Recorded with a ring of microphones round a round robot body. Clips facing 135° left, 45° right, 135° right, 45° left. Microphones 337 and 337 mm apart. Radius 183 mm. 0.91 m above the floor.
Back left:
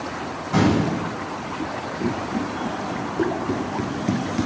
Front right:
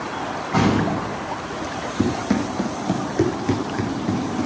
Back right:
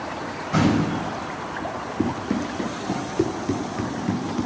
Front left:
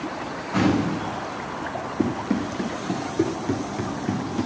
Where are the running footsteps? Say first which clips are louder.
Front right 5 dB, front left 1 dB; 45° right, 2.5 m; by 4.5 s 145° left, 1.1 m.